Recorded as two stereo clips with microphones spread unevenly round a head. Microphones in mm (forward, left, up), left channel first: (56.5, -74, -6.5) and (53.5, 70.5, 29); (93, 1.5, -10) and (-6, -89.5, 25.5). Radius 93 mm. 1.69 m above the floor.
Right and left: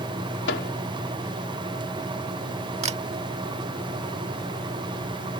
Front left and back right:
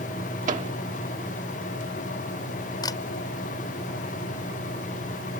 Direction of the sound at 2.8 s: 120° left.